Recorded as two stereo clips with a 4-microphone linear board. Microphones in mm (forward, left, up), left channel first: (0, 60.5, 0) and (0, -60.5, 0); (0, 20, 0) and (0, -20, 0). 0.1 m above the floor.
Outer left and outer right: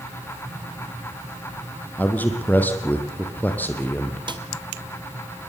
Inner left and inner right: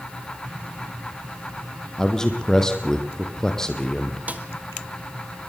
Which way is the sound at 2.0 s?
15° left (ahead or behind).